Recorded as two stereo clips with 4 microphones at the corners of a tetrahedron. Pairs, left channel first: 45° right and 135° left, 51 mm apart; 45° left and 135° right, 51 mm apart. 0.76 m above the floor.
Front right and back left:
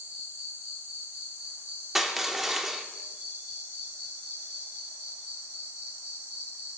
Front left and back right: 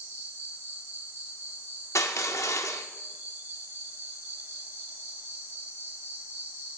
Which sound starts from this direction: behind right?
An insect, at 0.0 s.